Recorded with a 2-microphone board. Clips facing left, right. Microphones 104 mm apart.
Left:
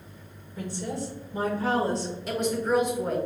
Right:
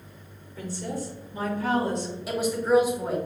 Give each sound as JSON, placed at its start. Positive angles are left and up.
{"t": 0.6, "sound": "a woman speaking", "side_deg": 20, "distance_m": 1.1}
{"t": 2.3, "sound": "a woman speaking", "side_deg": -5, "distance_m": 1.1}